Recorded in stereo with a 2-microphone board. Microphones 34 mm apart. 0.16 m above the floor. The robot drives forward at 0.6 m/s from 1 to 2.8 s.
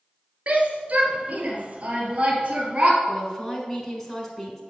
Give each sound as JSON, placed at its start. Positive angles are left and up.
{"t": 0.5, "sound": "a shout", "side_deg": -45, "distance_m": 2.5}
{"t": 3.1, "sound": "a woman speaking", "side_deg": 10, "distance_m": 1.5}